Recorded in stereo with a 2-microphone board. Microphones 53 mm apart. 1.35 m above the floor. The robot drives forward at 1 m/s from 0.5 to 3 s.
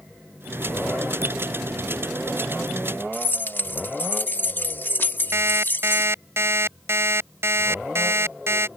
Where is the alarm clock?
55° right (ahead or behind).